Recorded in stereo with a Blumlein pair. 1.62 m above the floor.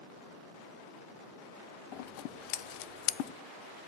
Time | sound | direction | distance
1.9 | scissors | 45° left | 0.5 m